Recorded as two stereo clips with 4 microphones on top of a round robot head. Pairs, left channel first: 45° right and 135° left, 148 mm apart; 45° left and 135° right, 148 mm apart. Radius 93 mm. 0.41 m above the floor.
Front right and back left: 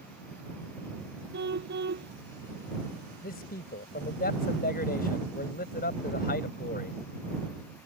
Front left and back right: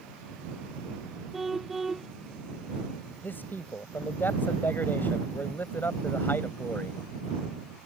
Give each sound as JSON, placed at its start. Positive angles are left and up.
{"t": 1.3, "sound": "a car horn", "azimuth_deg": 135}
{"t": 3.2, "sound": "a man speaking", "azimuth_deg": -30}